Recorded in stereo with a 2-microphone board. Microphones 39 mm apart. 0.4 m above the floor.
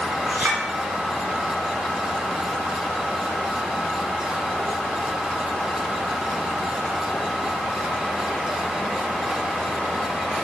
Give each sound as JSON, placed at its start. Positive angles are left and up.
{"t": 0.3, "sound": "a clink", "side_deg": -50, "distance_m": 2.5}